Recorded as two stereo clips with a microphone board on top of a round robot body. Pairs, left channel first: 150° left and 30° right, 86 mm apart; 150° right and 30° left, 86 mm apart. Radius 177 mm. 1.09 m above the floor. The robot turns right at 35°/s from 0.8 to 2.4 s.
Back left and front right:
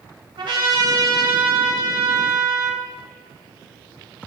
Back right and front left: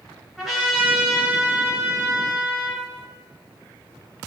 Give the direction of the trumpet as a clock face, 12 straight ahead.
2 o'clock.